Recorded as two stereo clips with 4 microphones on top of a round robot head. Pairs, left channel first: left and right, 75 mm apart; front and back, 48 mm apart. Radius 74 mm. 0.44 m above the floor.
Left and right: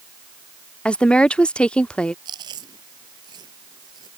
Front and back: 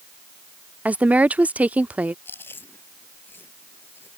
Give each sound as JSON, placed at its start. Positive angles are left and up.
{"t": 0.8, "sound": "a woman speaking", "azimuth_deg": 155}
{"t": 2.2, "sound": "chewing", "azimuth_deg": -55}